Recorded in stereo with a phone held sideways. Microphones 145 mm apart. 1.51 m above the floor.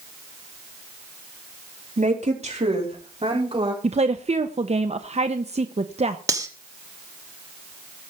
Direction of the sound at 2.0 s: 55° right (ahead or behind).